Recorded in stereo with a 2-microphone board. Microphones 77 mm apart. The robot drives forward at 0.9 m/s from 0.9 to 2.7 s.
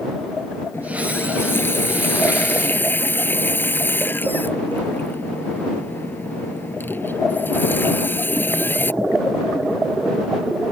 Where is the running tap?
30° left (ahead or behind); by 8.9 s 25° left (ahead or behind).